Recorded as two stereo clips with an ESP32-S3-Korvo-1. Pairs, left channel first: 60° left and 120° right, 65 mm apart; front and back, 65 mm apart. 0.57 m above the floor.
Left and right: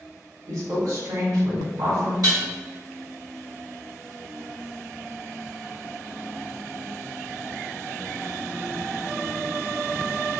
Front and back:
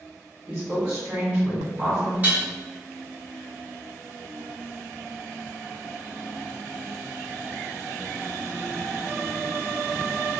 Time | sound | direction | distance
0.5 | a woman speaking | 110° right | 1.7 m
2.2 | dishes clattering | 120° right | 1.6 m